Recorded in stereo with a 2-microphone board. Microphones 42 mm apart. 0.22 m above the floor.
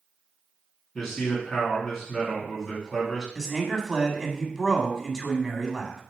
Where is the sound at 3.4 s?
15° right (ahead or behind), 1.4 m.